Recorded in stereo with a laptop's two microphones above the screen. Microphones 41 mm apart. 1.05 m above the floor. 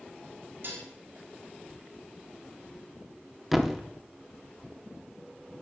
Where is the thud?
Centre (ahead or behind), 0.9 m.